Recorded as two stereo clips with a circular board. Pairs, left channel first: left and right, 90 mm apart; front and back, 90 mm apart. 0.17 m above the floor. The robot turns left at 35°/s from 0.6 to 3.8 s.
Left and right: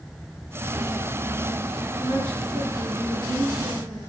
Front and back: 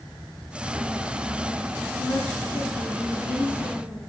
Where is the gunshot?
I don't hear a gunshot.